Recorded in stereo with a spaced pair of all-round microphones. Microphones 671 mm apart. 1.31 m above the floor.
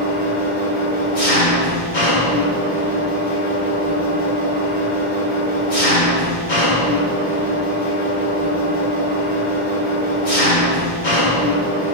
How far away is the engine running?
About 1.8 m.